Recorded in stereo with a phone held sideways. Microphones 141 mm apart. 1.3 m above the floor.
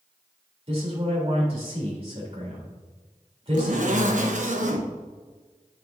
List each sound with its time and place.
0.7 s a man speaking: 45° right (ahead or behind), 3.5 m
3.5 s a zipper: 65° right (ahead or behind), 1.1 m